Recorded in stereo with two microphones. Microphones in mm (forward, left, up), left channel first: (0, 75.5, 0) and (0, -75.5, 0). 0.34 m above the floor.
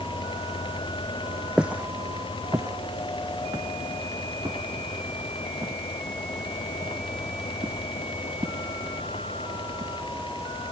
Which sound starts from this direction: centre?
Footsteps, at 1.6 s.